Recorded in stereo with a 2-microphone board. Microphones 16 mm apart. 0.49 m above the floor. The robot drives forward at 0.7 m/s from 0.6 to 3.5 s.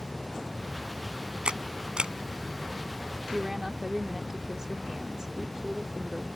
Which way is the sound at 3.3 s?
35° right (ahead or behind).